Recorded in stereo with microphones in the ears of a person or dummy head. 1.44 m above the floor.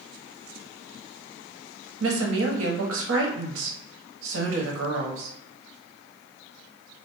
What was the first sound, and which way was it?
A woman speaking, 80° right.